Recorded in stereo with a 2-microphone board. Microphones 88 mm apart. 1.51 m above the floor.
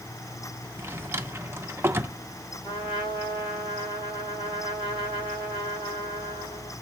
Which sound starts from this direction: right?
A drawer, at 0.8 s.